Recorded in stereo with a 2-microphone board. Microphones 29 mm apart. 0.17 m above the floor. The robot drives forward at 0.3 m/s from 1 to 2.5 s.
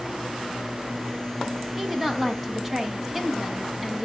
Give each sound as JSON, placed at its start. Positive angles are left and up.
{"t": 1.8, "sound": "a woman speaking", "side_deg": -10, "distance_m": 1.2}